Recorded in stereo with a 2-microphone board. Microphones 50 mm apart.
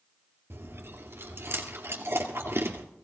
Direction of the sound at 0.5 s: 50° right (ahead or behind).